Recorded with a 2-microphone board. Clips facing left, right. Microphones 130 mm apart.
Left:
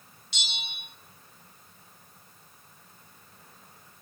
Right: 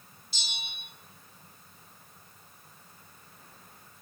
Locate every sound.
0.3 s a bell: 85° left, 1.1 m